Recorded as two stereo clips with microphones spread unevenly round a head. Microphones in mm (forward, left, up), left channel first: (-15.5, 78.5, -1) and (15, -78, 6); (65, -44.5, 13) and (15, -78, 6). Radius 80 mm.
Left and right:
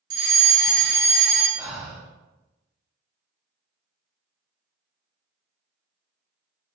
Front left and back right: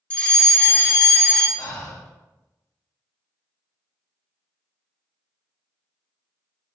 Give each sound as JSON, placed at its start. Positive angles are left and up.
{"t": 0.1, "sound": "a fire alarm", "azimuth_deg": -30, "distance_m": 0.6}
{"t": 1.6, "sound": "breathing", "azimuth_deg": 5, "distance_m": 0.8}